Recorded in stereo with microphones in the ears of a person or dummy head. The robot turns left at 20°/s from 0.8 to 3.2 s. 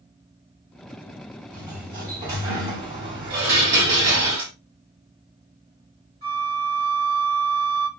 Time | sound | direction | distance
1.5 | a sliding door | 30° right | 1.5 m
3.3 | dishes clattering | 55° right (ahead or behind) | 1.7 m
6.2 | a flute | 40° right (ahead or behind) | 1.7 m